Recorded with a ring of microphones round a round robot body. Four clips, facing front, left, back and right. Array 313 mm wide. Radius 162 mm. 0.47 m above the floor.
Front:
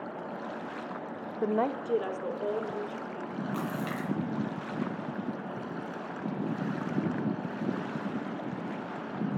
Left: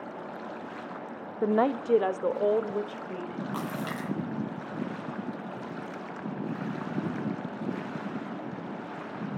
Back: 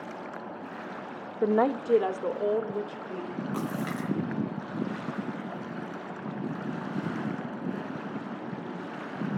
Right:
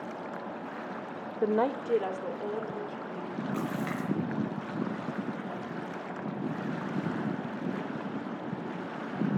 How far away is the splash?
About 7.5 m.